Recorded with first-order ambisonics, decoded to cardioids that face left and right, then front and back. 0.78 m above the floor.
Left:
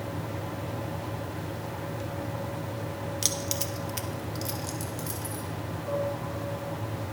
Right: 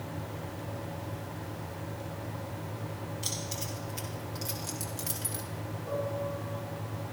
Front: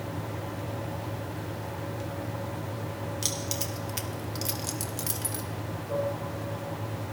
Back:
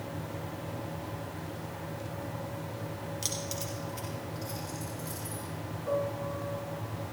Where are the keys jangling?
80° left, 1.1 m; by 5.4 s 15° right, 1.6 m.